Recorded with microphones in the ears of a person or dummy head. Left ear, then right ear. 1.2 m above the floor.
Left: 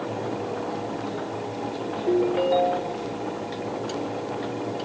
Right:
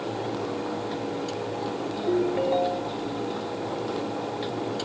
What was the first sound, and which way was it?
A ringtone, 10° left (ahead or behind).